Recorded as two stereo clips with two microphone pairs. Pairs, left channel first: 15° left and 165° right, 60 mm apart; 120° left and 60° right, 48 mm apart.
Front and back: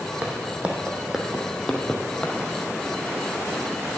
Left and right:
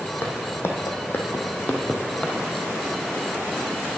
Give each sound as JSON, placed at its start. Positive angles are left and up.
{"t": 0.2, "sound": "footsteps", "azimuth_deg": 135, "distance_m": 1.5}